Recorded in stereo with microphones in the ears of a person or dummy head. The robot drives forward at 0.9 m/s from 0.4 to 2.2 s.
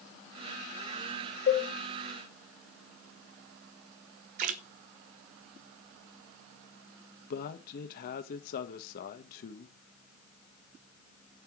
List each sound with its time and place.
1.5 s a cowbell: 40° left (ahead or behind), 6 m; by 1.7 s 35° left (ahead or behind), 6 m
4.4 s a splash: 50° right (ahead or behind), 0.7 m
7.3 s a man speaking: 55° left (ahead or behind), 1.2 m